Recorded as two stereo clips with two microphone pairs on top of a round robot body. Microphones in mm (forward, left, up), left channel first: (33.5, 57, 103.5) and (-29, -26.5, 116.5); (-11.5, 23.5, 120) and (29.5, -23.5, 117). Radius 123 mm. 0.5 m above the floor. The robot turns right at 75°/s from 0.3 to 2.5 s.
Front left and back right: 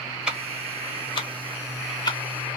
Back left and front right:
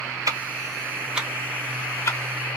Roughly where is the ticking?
Ahead right.